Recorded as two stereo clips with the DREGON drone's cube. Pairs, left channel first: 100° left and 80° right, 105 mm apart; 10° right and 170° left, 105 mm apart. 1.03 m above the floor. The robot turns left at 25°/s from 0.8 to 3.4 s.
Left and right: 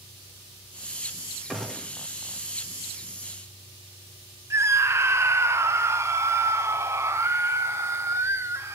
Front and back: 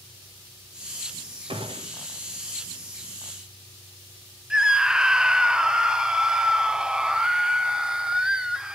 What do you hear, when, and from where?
1.5 s a gunshot: 165° right, 1.5 m; by 2.0 s straight behind, 1.5 m
4.5 s a scream: 110° right, 0.5 m